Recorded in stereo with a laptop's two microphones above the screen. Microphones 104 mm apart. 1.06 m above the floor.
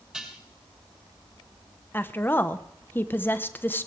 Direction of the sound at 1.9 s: 20° left (ahead or behind).